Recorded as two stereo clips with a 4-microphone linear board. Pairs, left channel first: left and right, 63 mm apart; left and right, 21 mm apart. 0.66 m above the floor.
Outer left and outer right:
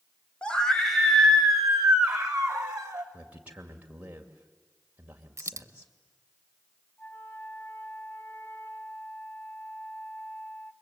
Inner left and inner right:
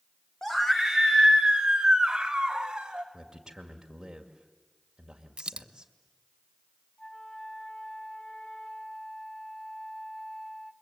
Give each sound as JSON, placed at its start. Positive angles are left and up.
{"t": 0.4, "sound": "a scream", "side_deg": 15, "distance_m": 1.6}
{"t": 3.1, "sound": "a man speaking", "side_deg": -25, "distance_m": 2.0}
{"t": 5.4, "sound": "a dropped coin", "side_deg": -50, "distance_m": 0.6}
{"t": 7.0, "sound": "a flute", "side_deg": 35, "distance_m": 1.1}